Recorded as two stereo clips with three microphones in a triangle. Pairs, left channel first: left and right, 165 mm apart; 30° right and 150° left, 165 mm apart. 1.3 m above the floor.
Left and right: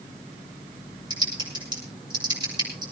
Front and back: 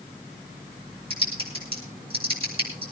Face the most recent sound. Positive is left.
turn(degrees=-155)